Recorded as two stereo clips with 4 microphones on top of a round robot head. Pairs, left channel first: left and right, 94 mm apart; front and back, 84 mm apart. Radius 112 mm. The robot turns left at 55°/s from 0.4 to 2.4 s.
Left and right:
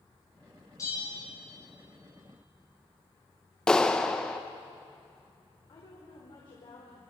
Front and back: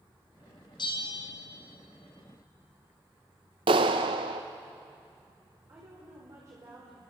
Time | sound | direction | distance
0.8 | a bell | 30° left | 3 m
3.7 | a clap | 170° left | 0.7 m
5.7 | a woman speaking | 125° left | 4.5 m